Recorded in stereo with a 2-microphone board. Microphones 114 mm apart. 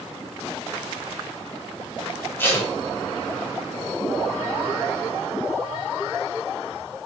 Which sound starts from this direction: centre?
Tape being pulled, at 2.4 s.